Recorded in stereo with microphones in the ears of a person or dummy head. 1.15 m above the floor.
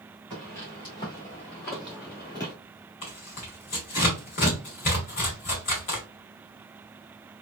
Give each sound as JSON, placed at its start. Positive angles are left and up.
{"t": 0.3, "sound": "footsteps", "side_deg": 10, "distance_m": 1.3}
{"t": 3.0, "sound": "tearing paper", "side_deg": 30, "distance_m": 0.9}